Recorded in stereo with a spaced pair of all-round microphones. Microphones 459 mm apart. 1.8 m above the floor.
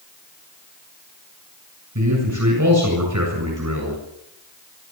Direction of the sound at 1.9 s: 40° right (ahead or behind).